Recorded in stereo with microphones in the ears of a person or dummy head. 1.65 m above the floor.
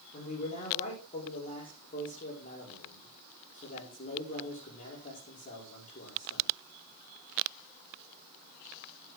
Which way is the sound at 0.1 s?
35° left (ahead or behind).